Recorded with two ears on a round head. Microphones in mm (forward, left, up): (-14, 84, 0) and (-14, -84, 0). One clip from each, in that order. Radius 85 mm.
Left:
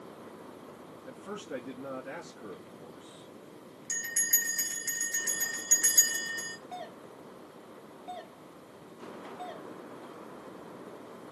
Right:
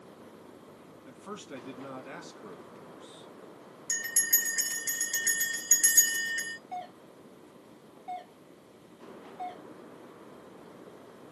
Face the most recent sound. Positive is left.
turn(degrees=10)  # may be behind; listen again after turning